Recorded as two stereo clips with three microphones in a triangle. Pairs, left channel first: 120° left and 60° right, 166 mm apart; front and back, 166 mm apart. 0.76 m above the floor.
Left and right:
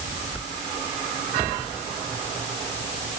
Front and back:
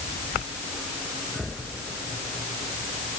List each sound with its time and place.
Only background noise.